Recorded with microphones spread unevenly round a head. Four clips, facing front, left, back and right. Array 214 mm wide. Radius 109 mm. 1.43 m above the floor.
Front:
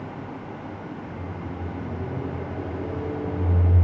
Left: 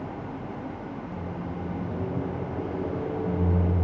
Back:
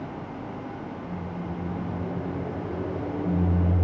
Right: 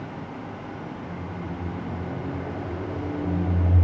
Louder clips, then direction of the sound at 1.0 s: Even, back 1 dB; 65° left.